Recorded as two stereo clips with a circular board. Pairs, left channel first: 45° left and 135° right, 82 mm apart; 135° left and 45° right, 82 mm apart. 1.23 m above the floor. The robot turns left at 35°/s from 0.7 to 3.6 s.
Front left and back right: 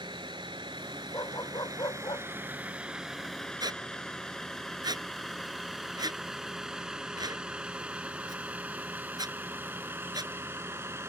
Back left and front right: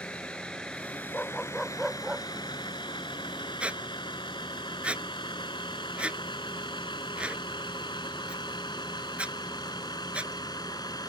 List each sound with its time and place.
0.0 s a vehicle: 150° right; by 11.1 s 165° left
1.1 s a dog barking: 70° left; by 2.3 s 30° left
3.6 s a squeak: 120° right